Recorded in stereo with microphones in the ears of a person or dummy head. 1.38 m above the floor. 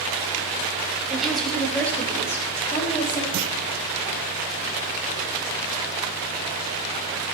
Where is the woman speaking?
5° right (ahead or behind), 2.5 m; by 3.2 s 20° left (ahead or behind), 3.5 m.